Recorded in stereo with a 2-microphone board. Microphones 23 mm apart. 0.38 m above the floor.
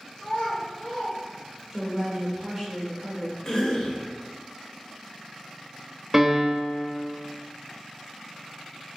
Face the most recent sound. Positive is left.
turn(degrees=-10)  # may be behind; listen again after turning